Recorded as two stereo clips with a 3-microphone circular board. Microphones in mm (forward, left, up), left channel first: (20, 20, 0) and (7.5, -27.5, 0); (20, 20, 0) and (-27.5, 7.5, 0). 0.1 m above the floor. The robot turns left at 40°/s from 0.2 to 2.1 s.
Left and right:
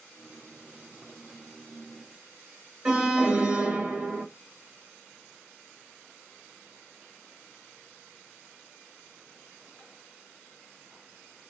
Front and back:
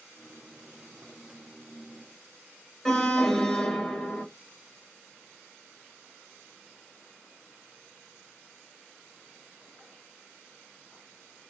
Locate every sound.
2.9 s an alarm: 55° right, 1.3 m